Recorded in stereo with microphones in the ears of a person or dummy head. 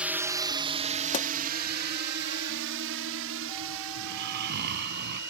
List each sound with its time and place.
0.0 s a drone: 10° right (ahead or behind); by 5.3 s 80° right
1.1 s a pop: 40° left (ahead or behind)
4.0 s snoring: 60° right (ahead or behind)